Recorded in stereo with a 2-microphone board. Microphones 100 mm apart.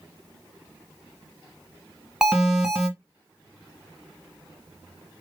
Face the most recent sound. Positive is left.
turn(degrees=-5)  # may be behind; listen again after turning